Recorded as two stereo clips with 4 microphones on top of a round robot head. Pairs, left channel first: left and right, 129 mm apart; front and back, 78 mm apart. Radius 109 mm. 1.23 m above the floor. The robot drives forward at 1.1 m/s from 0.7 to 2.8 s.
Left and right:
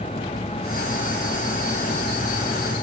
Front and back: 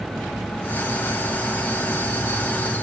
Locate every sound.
Only background noise.